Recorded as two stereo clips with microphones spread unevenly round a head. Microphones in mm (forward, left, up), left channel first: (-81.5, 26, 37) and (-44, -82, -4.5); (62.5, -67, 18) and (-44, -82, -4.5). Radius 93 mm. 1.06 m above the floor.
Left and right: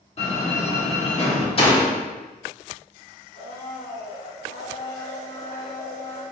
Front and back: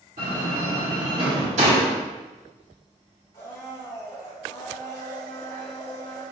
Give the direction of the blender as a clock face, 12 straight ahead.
10 o'clock.